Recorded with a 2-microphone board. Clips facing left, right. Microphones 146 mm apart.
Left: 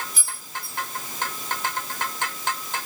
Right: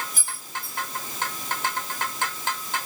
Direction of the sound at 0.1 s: 50° right (ahead or behind).